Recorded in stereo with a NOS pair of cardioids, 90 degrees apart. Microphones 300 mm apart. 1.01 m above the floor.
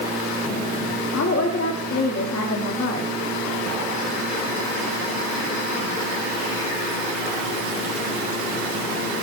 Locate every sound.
1.1 s a woman speaking: 55° left, 2.5 m